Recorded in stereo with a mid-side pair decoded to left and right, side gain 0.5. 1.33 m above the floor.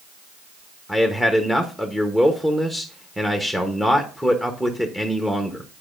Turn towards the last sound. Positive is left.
turn(degrees=-5)